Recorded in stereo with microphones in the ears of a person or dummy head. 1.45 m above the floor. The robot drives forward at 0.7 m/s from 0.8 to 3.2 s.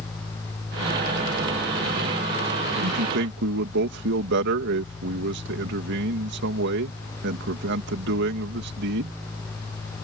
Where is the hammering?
I don't hear hammering.